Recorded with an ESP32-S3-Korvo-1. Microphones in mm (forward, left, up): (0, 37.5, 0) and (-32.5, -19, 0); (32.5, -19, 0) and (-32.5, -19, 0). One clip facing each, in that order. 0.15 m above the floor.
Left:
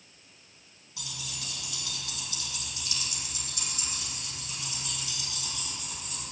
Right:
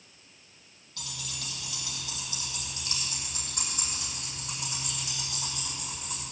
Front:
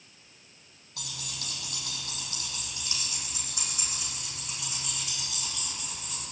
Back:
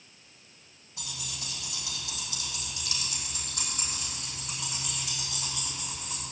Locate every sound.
1.0 s keys jangling: 20° right, 4 m; by 6.2 s 100° right, 8 m